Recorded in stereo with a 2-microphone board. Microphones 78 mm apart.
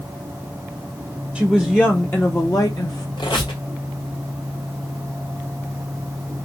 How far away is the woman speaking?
About 0.8 m.